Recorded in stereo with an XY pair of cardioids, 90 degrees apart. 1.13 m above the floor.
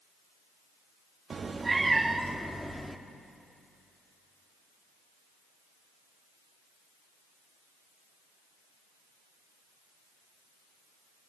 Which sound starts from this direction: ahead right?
A cat meowing, at 1.3 s.